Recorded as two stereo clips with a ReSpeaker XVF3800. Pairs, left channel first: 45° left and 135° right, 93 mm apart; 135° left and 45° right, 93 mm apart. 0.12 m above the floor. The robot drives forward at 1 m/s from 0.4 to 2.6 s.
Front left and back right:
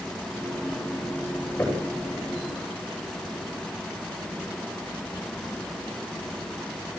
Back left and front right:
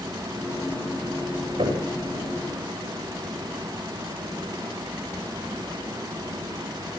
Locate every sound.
1.6 s knocking: 30° right, 9 m